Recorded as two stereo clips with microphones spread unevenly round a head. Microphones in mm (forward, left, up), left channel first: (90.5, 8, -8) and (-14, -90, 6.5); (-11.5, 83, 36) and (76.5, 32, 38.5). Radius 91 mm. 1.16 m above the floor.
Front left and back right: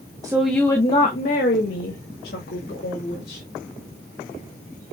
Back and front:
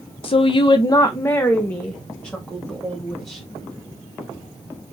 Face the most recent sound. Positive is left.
turn(degrees=65)